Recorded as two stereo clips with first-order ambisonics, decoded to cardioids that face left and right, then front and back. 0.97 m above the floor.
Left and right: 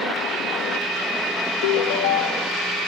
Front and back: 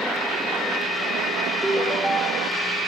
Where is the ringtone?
95° left, 0.9 m.